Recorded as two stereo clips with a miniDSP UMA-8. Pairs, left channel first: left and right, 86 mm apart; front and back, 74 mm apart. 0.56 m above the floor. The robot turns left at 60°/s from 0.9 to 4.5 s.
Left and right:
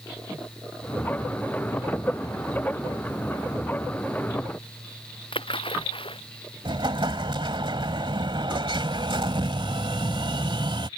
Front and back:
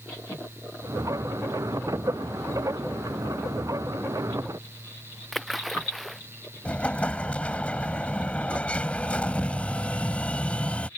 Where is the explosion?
75° right.